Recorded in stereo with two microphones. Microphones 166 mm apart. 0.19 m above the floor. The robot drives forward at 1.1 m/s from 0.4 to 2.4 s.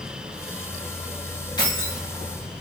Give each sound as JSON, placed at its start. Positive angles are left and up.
{"t": 1.6, "sound": "keys jangling", "side_deg": 25, "distance_m": 5.5}